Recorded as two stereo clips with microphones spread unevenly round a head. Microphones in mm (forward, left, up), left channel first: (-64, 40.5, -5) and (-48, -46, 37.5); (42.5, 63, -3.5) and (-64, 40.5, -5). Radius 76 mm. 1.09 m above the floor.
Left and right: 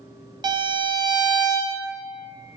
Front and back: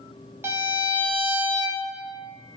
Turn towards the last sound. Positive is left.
turn(degrees=-120)